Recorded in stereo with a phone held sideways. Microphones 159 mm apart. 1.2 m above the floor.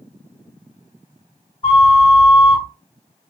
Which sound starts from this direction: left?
A flute, at 1.6 s.